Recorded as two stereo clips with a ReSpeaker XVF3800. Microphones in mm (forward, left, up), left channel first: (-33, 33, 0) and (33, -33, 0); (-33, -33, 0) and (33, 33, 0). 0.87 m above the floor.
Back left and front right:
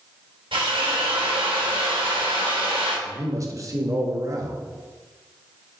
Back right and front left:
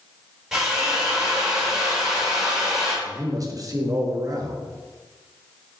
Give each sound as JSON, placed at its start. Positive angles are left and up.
{"t": 0.5, "sound": "a drill", "azimuth_deg": -40, "distance_m": 2.0}
{"t": 3.0, "sound": "a man speaking", "azimuth_deg": 0, "distance_m": 1.0}